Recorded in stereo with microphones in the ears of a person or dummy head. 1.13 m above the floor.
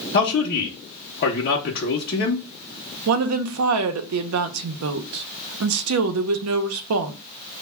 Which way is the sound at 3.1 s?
70° right (ahead or behind).